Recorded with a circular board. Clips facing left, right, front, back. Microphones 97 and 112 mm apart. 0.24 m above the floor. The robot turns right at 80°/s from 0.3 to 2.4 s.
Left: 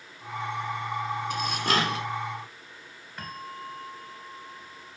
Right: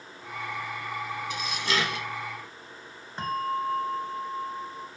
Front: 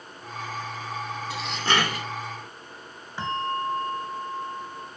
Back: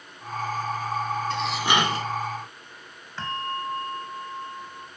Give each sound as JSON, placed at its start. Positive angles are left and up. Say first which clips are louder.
{"t": 1.3, "sound": "dishes clattering", "louder": "left 3 dB, even", "azimuth_deg": 80, "distance_m": 1.2}
{"t": 3.2, "sound": "a bell", "louder": "right 11 dB, front 3 dB", "azimuth_deg": -60, "distance_m": 1.3}